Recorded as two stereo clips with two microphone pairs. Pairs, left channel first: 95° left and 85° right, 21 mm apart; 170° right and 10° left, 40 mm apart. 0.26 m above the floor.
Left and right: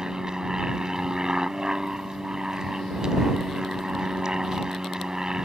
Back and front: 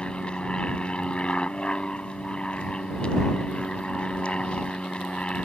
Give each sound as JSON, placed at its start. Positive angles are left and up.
{"t": 0.0, "sound": "an aircraft", "azimuth_deg": -120}